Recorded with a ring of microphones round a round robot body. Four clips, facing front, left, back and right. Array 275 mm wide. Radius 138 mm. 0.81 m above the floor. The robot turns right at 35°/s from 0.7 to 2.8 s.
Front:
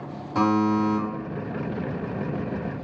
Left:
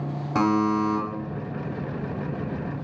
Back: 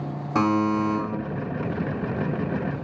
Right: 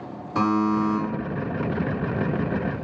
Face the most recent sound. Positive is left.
turn(degrees=-150)